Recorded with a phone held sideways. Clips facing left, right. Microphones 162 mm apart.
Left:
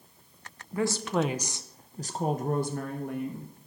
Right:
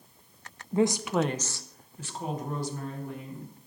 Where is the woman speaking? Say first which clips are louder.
Right 3 dB; 25° right (ahead or behind), 0.6 m; by 3.5 s 65° left (ahead or behind), 1.4 m.